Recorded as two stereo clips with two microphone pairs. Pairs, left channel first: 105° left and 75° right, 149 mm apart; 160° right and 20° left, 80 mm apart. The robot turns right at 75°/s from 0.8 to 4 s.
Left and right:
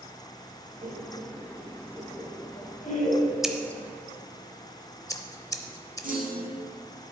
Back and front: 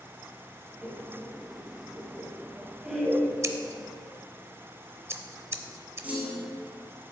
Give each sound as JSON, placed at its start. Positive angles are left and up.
{"t": 0.8, "sound": "laughter", "azimuth_deg": -55, "distance_m": 1.4}
{"t": 3.4, "sound": "scissors", "azimuth_deg": 10, "distance_m": 0.6}
{"t": 6.0, "sound": "a clunk", "azimuth_deg": -50, "distance_m": 1.7}